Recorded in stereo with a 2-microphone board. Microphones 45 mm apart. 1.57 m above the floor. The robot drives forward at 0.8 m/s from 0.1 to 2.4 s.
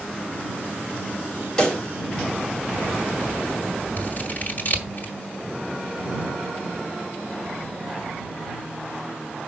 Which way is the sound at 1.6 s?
20° left (ahead or behind).